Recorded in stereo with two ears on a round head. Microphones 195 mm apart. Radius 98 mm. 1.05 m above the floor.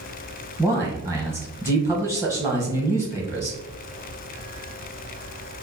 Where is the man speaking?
15° right (ahead or behind), 0.9 m.